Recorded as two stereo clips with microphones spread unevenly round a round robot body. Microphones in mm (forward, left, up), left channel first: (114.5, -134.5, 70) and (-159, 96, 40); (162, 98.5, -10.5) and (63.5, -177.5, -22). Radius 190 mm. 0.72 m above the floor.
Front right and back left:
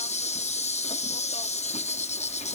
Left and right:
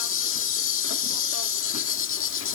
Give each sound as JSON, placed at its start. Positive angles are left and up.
{"t": 0.0, "sound": "an insect", "azimuth_deg": 35}